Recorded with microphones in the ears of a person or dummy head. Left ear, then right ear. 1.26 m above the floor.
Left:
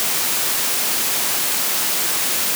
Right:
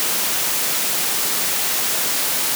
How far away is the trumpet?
I don't hear a trumpet.